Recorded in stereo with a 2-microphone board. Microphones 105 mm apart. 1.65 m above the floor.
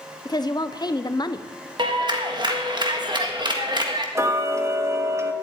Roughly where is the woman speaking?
Left.